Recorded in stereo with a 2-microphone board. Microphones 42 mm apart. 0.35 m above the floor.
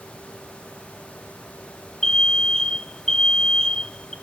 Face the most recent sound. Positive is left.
turn(degrees=15)  # may be behind; listen again after turning